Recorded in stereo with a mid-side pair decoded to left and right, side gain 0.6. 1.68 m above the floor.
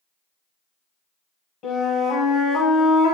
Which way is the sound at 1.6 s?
50° left.